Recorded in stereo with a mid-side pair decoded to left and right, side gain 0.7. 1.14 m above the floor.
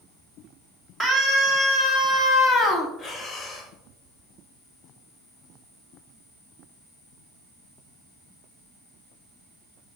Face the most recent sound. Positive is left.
turn(degrees=25)